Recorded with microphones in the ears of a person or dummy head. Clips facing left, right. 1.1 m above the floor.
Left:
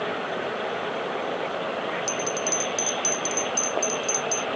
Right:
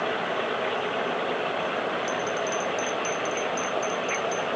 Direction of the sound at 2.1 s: 60° left (ahead or behind).